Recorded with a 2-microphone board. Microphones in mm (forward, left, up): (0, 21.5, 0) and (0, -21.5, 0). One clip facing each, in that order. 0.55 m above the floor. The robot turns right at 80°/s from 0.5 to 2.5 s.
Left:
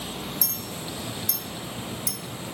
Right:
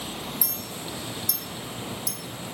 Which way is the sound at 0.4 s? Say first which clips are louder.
Left 1 dB; 15° right (ahead or behind).